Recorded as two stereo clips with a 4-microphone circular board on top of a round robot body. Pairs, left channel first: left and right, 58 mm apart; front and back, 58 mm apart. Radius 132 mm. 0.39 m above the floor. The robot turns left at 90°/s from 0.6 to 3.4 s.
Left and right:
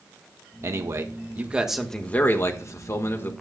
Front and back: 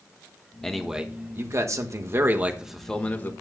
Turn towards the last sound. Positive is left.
turn(degrees=35)